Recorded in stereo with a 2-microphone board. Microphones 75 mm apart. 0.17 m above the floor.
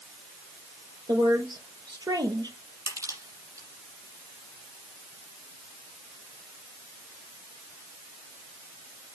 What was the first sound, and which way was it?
A woman speaking, 65° right (ahead or behind).